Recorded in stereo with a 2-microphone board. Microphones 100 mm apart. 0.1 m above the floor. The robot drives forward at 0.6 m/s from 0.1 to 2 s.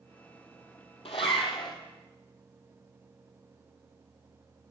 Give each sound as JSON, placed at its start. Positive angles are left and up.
{"t": 1.1, "sound": "a zipper", "side_deg": 75, "distance_m": 0.5}